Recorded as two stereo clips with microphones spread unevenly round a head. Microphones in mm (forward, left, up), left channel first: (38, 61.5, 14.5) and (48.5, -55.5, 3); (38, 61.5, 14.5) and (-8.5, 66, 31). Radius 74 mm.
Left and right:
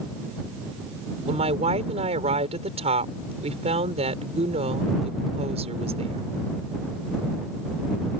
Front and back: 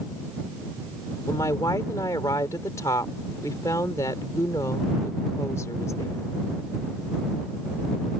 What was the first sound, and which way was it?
A woman speaking, 55° right.